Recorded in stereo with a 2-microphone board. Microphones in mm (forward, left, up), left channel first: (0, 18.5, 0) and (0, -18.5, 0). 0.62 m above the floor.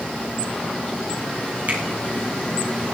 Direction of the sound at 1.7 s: 50° right (ahead or behind).